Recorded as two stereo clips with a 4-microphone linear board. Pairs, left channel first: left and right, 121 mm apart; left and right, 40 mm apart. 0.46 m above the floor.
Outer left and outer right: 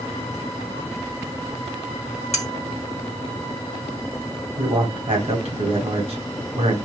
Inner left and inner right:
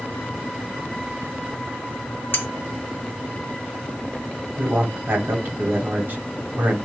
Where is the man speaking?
65° right (ahead or behind), 1.9 m.